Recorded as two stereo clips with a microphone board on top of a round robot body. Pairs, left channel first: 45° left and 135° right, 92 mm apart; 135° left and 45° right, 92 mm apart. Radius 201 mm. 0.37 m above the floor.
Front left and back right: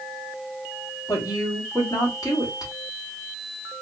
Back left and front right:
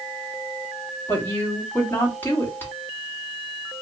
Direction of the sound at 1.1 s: 75° left.